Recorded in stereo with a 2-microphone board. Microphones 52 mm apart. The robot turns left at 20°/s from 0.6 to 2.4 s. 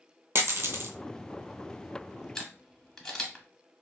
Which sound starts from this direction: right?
A dropped coin, at 0.3 s.